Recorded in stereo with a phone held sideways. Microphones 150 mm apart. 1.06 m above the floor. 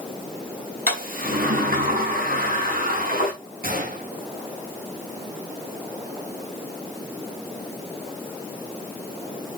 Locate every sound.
0.9 s a sliding door: 80° right, 5 m
3.6 s a gunshot: 80° right, 4 m